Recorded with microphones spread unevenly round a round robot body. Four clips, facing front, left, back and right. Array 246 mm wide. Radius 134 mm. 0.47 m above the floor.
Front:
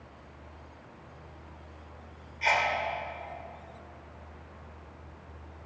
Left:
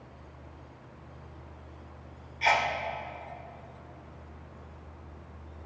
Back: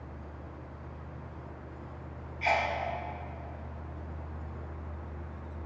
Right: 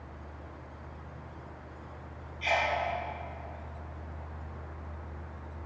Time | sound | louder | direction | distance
2.4 | a sneeze | left 3 dB, front 1 dB | 60° left | 1.3 m